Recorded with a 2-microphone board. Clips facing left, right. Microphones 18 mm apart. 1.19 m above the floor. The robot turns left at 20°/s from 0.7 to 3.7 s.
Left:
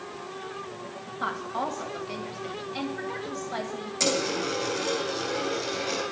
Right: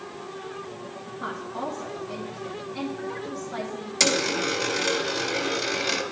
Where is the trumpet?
No trumpet in this recording.